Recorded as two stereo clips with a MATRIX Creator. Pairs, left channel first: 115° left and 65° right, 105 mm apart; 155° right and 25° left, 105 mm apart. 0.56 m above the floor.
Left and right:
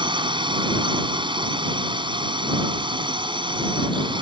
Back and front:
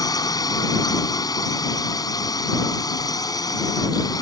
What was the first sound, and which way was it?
A drone, 105° right.